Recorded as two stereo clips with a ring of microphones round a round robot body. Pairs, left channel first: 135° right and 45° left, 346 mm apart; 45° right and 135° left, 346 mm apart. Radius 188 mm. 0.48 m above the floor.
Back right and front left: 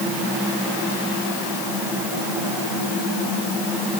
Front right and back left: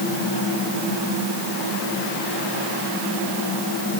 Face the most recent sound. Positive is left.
No sound to turn to.